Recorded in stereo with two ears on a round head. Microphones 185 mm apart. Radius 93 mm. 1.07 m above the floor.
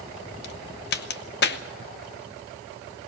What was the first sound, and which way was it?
A crack, 50° left (ahead or behind).